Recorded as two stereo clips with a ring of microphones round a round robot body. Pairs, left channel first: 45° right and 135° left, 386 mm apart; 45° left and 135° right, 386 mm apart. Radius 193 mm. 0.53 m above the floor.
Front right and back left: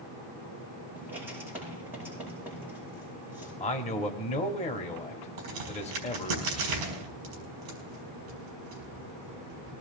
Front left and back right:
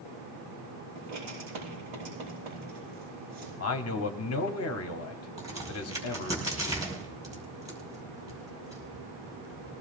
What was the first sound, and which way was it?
Writing, 140° right.